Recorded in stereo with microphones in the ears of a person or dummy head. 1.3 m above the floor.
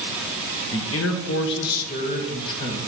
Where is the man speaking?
60° left (ahead or behind), 1.1 m; by 2.8 s 20° left (ahead or behind), 1.4 m.